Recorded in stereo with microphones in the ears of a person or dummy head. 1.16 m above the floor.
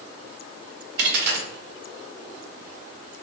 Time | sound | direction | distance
1.0 | a dropped coin | 60° right (ahead or behind) | 0.8 m